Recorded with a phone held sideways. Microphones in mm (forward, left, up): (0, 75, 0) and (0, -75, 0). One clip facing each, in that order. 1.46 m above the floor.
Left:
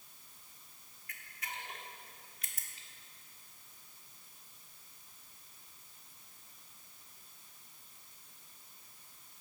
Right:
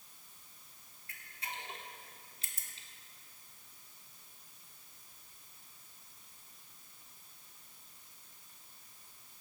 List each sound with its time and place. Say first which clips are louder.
1.1 s a camera shutter: right 1 dB; 30° right (ahead or behind), 1.1 m